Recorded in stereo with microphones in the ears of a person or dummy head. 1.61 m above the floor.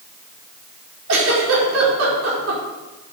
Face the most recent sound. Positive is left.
turn(degrees=-85)